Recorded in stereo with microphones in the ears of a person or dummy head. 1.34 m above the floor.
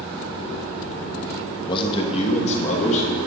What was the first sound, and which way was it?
A man speaking, 25° left (ahead or behind).